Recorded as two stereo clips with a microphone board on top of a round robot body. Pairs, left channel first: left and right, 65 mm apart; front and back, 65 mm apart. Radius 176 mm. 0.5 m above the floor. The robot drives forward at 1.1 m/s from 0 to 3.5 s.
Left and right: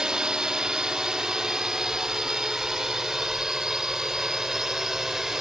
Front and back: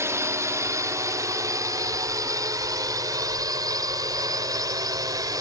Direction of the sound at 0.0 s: 165° right.